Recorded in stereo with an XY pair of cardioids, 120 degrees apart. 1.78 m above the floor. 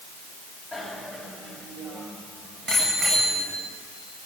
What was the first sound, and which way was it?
A bicycle bell, 10° right.